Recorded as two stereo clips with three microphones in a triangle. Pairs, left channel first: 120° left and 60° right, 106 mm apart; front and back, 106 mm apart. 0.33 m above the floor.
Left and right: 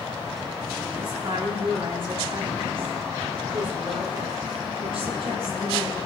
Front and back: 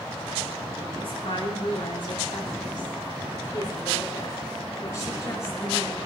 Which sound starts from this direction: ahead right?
A woman speaking, at 1.0 s.